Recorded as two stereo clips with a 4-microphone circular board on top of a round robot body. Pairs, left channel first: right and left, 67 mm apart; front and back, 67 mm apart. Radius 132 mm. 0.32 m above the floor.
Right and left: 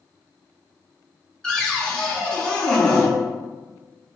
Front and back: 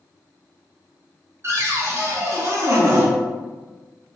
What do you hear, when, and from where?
1.4 s a cupboard door: 160° right, 0.8 m